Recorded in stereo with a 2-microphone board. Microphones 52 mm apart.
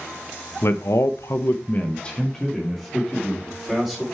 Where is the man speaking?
60° left (ahead or behind), 1.2 m; by 4.0 s 5° right (ahead or behind), 3.5 m.